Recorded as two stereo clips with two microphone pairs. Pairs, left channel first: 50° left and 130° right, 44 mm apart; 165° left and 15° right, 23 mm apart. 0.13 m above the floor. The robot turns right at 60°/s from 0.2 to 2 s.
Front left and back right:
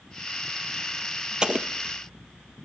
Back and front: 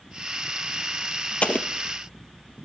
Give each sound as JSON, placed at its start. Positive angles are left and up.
{"t": 1.4, "sound": "an explosion", "azimuth_deg": 160, "distance_m": 0.9}